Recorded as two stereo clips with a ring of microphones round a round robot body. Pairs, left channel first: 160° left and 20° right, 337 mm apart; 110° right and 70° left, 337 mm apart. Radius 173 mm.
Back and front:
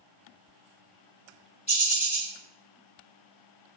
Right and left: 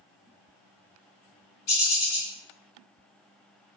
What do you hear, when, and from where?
1.7 s a bird: 130° right, 2 m